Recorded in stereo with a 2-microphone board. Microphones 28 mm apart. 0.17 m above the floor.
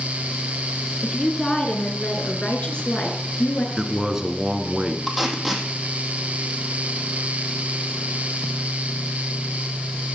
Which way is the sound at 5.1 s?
5° left (ahead or behind).